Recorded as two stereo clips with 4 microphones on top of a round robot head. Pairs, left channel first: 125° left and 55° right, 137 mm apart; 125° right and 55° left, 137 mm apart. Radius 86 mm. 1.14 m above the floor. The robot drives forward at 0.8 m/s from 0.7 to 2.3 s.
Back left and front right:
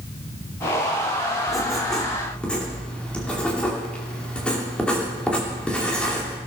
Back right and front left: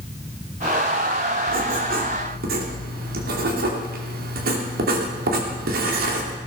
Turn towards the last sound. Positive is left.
turn(degrees=45)